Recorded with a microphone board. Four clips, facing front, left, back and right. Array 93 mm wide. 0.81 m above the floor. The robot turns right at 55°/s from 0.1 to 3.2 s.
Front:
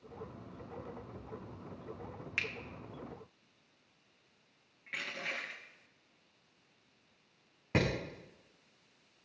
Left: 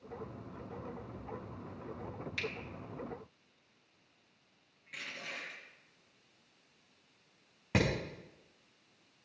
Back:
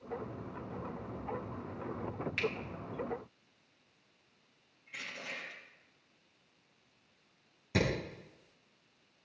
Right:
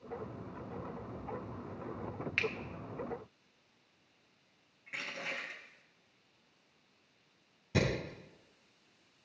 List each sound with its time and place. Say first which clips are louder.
2.4 s a finger snap: right 5 dB, back 4 dB; 70° right, 1.0 m; by 2.5 s 60° right, 1.0 m
4.9 s crushing: right 4 dB, front 4 dB; 20° right, 3.5 m
7.7 s hammering: left 1 dB, even; 55° left, 5.5 m